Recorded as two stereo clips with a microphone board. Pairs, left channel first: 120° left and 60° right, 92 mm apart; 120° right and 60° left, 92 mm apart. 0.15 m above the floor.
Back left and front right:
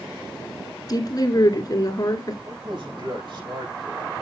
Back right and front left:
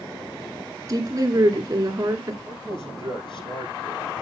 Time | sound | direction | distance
0.9 | a woman speaking | 95° left | 2 m
2.5 | a man speaking | 90° right | 6 m